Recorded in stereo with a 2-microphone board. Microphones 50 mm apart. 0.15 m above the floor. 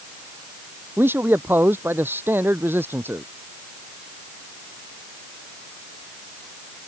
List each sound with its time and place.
1.0 s a man speaking: 45° right (ahead or behind)